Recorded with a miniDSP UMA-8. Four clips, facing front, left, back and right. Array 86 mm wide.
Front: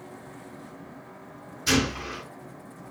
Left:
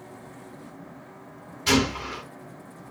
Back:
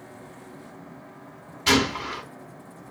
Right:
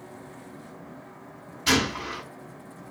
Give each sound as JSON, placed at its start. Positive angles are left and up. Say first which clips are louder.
{"t": 1.7, "sound": "a gunshot", "louder": "left 2 dB, back 3 dB", "azimuth_deg": 180, "distance_m": 1.2}